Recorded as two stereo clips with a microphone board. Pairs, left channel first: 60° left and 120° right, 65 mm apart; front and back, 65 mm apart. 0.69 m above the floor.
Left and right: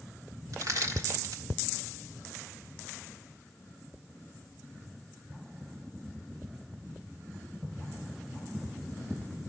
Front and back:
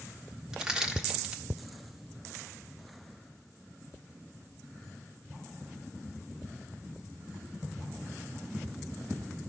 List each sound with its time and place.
0.5 s crushing: 100° right, 1.3 m